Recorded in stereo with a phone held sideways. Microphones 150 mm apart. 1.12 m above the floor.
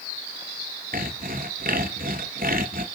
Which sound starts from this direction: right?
Sawing, at 0.9 s.